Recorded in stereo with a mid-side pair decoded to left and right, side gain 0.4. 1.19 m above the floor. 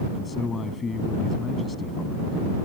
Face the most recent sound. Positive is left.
turn(degrees=40)